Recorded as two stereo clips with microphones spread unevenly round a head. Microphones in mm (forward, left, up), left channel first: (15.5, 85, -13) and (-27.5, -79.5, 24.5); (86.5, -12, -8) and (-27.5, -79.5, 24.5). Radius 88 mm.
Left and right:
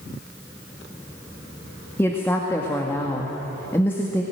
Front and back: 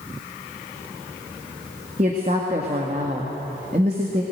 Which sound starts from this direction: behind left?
A woman speaking, at 2.0 s.